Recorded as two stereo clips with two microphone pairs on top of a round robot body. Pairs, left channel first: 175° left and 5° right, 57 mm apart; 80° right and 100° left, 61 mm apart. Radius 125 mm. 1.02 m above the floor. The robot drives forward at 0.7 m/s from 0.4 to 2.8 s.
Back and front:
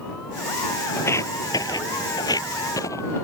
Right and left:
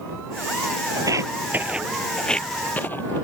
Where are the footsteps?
130° left; by 3.2 s 140° right.